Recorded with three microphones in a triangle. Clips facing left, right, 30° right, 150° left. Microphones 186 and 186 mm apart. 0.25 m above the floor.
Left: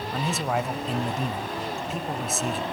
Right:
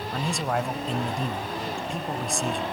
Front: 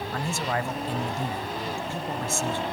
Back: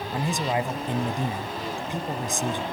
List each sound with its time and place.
0.1 s a man speaking: 170° left, 0.9 m